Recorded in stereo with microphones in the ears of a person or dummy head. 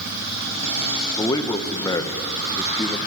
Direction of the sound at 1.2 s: 20° left (ahead or behind).